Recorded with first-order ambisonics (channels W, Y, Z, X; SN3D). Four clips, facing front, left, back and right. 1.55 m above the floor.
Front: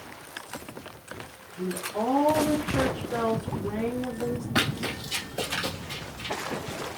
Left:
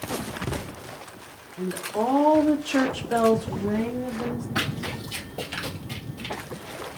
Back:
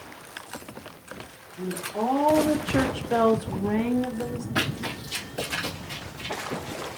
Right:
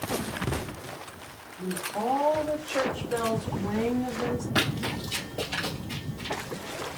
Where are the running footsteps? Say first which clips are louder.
Right 2 dB, even; 50° right, 1.7 m; by 6.3 s 105° left, 1.8 m.